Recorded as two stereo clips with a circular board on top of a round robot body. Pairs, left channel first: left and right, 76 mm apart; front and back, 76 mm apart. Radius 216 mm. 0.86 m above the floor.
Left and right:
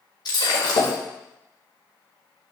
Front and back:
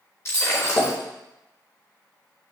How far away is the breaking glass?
About 1.4 m.